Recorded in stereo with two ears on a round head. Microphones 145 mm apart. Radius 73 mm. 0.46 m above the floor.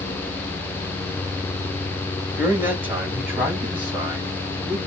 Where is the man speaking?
15° right (ahead or behind), 1.8 m; by 4.8 s 10° right (ahead or behind), 4 m.